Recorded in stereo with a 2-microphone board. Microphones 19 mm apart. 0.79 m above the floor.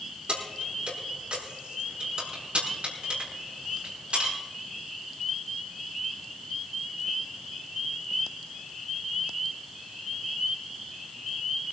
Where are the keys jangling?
60° right (ahead or behind), 7 m.